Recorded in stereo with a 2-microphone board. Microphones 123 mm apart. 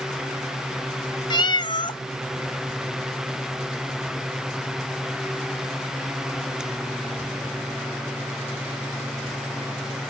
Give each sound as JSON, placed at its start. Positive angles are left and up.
{"t": 1.3, "sound": "a cat meowing", "side_deg": 40, "distance_m": 0.6}